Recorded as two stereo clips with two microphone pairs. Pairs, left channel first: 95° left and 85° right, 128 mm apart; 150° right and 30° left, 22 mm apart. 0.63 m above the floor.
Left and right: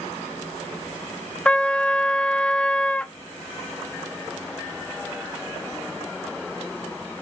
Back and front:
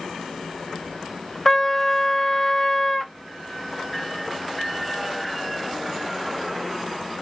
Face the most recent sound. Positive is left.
turn(degrees=160)